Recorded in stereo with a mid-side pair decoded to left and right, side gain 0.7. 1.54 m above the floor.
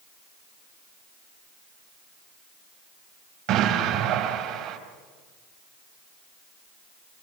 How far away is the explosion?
About 4.5 m.